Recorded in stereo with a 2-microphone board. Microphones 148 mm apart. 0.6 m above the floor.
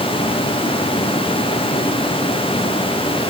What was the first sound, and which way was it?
Only background noise.